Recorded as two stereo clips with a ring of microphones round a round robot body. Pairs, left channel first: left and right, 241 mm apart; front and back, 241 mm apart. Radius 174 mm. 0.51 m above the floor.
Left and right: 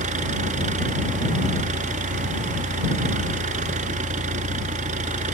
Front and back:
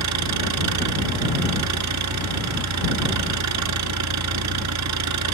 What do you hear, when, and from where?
0.0 s an engine running: 160° right